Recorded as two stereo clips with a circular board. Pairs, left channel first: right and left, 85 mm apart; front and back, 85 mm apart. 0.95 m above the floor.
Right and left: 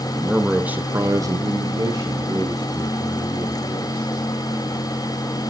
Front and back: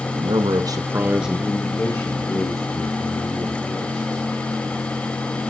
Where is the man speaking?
Straight behind, 1.7 m; by 4.2 s 35° left, 4.5 m.